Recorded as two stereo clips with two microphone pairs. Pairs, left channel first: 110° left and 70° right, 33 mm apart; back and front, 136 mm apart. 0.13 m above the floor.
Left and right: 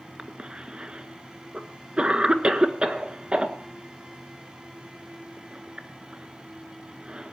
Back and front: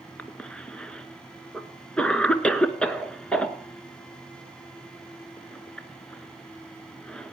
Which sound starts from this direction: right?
A cough, at 0.2 s.